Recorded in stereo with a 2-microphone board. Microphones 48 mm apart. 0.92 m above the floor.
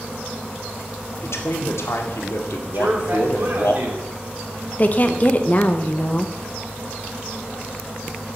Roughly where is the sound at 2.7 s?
Right.